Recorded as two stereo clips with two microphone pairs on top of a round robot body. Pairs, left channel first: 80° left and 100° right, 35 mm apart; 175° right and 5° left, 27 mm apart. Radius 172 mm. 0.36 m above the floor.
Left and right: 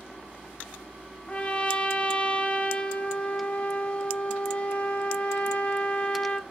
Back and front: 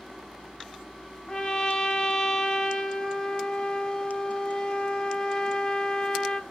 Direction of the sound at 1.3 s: 125° left.